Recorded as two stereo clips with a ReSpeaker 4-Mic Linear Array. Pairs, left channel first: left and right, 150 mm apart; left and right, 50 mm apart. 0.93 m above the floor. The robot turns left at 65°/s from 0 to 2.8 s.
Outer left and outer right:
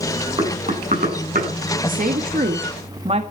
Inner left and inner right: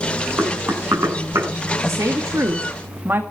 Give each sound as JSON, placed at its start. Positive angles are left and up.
{"t": 0.4, "sound": "knocking", "side_deg": -35, "distance_m": 7.5}
{"t": 1.8, "sound": "a woman speaking", "azimuth_deg": -70, "distance_m": 1.6}